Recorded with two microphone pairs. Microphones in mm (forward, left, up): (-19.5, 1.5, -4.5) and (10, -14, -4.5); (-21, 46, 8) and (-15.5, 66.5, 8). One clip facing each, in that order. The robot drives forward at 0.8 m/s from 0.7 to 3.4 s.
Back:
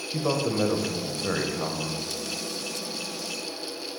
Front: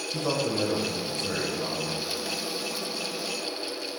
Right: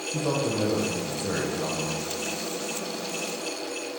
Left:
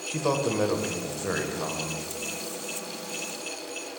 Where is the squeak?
No squeak in this recording.